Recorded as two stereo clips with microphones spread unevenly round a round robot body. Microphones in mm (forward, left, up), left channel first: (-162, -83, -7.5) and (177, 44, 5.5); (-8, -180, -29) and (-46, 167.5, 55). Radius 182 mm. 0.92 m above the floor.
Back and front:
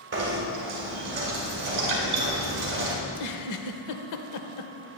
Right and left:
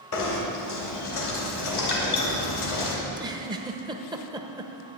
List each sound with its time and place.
0.1 s knocking: 40° right, 3 m
3.0 s a giggle: 165° left, 0.9 m